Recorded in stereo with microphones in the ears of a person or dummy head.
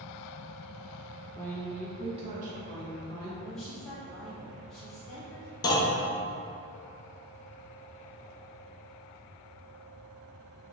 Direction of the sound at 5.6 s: 20° left (ahead or behind).